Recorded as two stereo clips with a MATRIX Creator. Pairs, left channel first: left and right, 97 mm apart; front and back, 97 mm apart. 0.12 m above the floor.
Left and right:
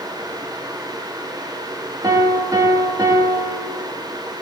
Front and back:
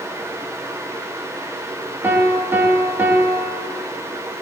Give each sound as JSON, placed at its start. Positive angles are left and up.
{"t": 2.0, "sound": "a piano", "azimuth_deg": -115, "distance_m": 0.5}